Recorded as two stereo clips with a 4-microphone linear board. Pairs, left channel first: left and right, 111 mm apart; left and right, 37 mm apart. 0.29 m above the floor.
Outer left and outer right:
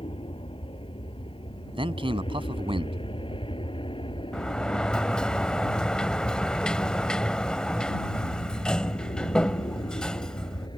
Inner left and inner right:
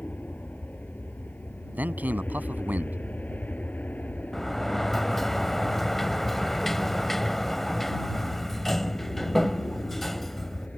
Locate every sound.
0.0 s an aircraft: 55° left (ahead or behind); by 10.8 s 40° left (ahead or behind)
1.7 s a man speaking: 55° right (ahead or behind)
4.3 s a sliding door: 5° left (ahead or behind)